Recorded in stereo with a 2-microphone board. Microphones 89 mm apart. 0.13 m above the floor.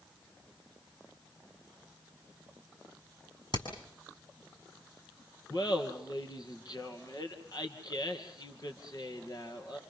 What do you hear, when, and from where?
3.5 s hammering: 65° left (ahead or behind), 7 m
5.5 s laughter: 45° left (ahead or behind), 3 m